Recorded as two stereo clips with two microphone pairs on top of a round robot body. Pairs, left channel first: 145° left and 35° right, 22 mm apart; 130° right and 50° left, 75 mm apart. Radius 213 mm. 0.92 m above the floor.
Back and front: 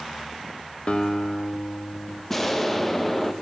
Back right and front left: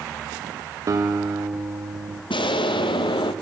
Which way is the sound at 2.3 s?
135° right.